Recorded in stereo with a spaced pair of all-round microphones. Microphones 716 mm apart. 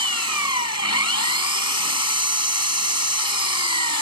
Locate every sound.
0.0 s an engine running: 20° left (ahead or behind)